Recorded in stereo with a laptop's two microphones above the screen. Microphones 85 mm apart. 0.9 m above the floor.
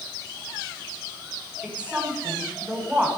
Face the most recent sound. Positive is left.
turn(degrees=-15)  # may be behind; listen again after turning